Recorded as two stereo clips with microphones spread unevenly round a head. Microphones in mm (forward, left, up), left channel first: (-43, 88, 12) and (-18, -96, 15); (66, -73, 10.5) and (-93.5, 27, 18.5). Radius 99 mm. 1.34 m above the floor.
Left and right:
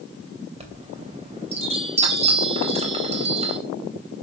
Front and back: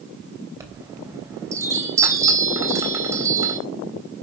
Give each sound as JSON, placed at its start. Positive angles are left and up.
{"t": 0.6, "sound": "a chime", "azimuth_deg": -140, "distance_m": 3.0}